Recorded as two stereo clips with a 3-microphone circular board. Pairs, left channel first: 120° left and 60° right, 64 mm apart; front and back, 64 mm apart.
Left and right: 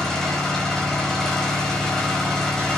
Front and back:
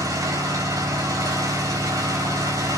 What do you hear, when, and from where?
0.0 s an engine running: 160° right, 4.5 m